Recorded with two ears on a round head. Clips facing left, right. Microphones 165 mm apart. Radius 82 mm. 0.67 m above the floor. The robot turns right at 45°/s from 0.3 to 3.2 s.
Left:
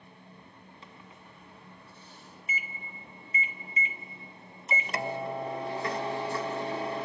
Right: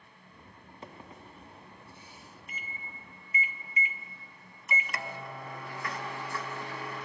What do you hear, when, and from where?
0.8 s a microwave: 70° right, 0.8 m; by 7.1 s 35° left, 0.8 m